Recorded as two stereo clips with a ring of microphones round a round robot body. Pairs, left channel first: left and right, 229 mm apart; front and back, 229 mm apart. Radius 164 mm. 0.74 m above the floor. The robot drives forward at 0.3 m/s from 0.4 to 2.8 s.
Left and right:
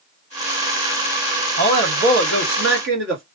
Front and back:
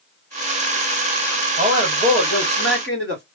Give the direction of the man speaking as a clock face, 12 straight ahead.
4 o'clock.